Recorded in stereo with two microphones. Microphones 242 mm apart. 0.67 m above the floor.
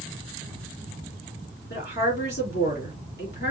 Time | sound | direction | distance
1.7 | a woman speaking | 45° left (ahead or behind) | 2.5 m